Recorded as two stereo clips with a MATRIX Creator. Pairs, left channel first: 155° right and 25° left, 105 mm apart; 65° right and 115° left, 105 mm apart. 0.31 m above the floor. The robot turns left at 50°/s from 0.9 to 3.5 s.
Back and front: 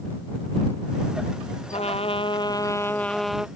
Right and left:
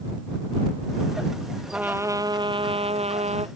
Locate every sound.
1.7 s a trumpet: 165° right; by 3.5 s 105° left